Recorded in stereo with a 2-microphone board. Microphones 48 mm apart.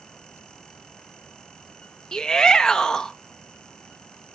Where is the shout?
15° left (ahead or behind), 0.6 m.